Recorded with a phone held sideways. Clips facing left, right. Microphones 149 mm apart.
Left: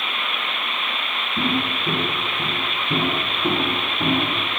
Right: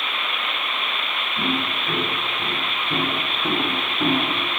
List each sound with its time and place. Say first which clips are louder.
1.4 s footsteps: left 2 dB; 45° left (ahead or behind), 3 m; by 4.5 s 10° right (ahead or behind), 4 m